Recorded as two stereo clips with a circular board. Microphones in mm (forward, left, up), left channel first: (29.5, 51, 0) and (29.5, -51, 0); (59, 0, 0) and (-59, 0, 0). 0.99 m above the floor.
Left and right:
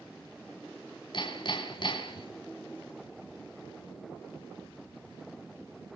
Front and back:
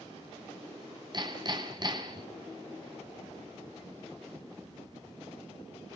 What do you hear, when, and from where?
1.1 s hammering: 130° left, 3.5 m